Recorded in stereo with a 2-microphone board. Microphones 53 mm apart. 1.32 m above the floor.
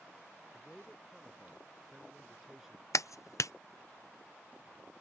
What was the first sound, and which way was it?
A man speaking, centre (ahead or behind).